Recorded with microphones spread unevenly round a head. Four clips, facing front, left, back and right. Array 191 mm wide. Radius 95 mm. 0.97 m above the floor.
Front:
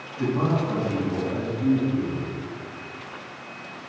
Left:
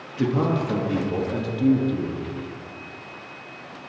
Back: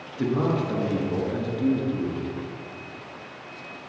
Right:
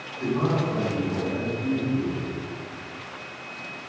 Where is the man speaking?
95° left, 1.6 m.